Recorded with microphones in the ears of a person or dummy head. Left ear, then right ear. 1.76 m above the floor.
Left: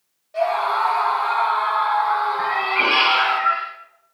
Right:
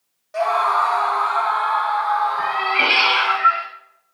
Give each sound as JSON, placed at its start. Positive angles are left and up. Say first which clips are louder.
{"t": 0.3, "sound": "a scream", "louder": "right 2 dB", "side_deg": -50, "distance_m": 1.9}
{"t": 2.4, "sound": "a cat meowing", "louder": "right 1 dB", "side_deg": -65, "distance_m": 4.5}